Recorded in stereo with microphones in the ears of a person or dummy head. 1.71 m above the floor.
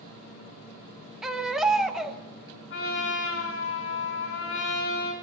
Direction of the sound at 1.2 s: 5° left (ahead or behind).